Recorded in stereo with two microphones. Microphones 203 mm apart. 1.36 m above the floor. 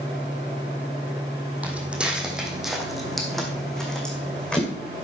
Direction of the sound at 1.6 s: 5° right (ahead or behind).